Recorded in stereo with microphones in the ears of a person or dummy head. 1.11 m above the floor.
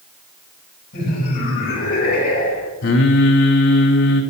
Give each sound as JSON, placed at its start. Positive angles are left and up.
{"t": 0.9, "sound": "laughter", "side_deg": 50, "distance_m": 7.5}
{"t": 2.8, "sound": "singing", "side_deg": 65, "distance_m": 3.5}